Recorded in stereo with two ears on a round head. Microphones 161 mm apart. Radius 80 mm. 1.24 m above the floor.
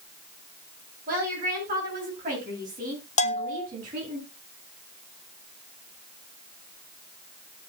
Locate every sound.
1.1 s a woman speaking: 50° right (ahead or behind), 8 m; by 4.2 s 45° right (ahead or behind), 10.5 m
3.2 s a bell: 40° left (ahead or behind), 0.9 m